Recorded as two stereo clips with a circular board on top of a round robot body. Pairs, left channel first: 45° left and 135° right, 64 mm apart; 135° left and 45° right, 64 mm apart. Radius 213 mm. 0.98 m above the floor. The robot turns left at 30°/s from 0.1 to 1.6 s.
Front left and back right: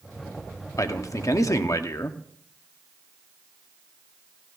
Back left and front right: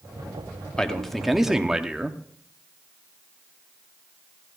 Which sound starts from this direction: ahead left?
A man speaking, at 0.8 s.